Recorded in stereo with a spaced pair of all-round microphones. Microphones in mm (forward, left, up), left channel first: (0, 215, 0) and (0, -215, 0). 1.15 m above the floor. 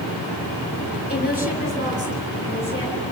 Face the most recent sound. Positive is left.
turn(degrees=10)  # may be behind; listen again after turning